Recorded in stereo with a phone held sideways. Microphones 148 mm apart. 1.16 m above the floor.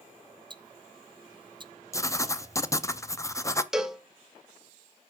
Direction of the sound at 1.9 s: 20° left (ahead or behind).